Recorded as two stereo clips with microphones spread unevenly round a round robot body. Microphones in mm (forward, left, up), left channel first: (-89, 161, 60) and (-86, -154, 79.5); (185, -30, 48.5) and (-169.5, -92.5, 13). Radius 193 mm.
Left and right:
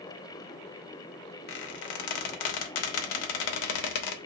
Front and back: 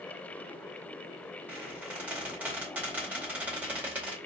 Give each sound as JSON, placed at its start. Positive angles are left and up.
{"t": 1.5, "sound": "a squeak", "azimuth_deg": 100, "distance_m": 0.6}